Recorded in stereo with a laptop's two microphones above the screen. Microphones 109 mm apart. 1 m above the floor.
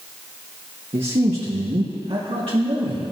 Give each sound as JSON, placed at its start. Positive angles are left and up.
{"t": 0.9, "sound": "a man speaking", "side_deg": -55, "distance_m": 1.3}